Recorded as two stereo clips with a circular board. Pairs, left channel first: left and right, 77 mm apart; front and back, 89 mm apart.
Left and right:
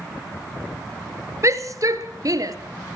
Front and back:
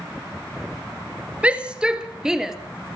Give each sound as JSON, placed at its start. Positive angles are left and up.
{"t": 1.4, "sound": "a shout", "azimuth_deg": -110, "distance_m": 2.5}